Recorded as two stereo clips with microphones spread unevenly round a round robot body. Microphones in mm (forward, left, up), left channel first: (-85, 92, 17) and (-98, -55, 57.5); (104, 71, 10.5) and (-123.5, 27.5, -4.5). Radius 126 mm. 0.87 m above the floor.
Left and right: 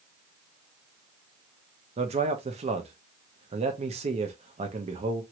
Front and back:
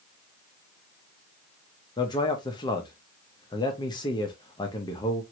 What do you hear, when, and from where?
2.0 s a man speaking: 55° right, 0.7 m